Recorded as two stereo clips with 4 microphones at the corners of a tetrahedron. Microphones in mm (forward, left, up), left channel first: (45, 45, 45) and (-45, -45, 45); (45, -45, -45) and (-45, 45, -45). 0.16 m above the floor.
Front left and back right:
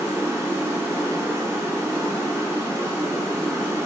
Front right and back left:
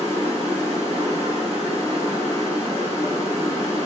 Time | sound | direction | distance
0.0 | running water | 160° left | 1.5 m